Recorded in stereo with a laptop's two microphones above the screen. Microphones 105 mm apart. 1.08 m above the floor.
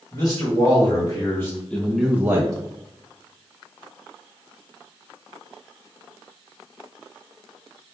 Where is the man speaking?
35° left (ahead or behind), 1.7 m; by 2.5 s 35° right (ahead or behind), 0.6 m.